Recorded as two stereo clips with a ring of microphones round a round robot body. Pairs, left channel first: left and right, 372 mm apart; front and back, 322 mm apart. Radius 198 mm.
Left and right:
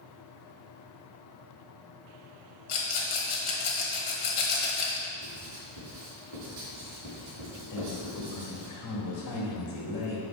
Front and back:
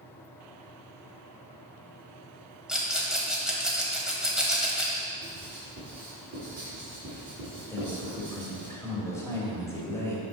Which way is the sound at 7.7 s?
80° left.